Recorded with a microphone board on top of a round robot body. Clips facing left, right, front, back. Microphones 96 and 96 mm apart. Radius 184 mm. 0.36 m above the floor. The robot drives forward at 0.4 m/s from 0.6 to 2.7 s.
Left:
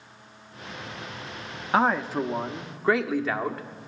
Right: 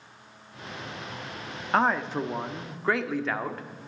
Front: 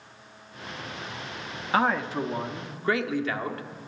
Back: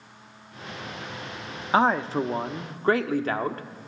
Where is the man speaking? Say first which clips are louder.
Left 2 dB, back 3 dB; 170° left, 1.0 m; by 3.6 s 175° left, 1.2 m.